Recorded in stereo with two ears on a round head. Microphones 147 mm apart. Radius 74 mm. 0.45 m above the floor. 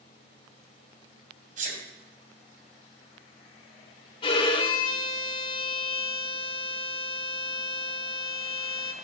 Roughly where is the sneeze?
Right.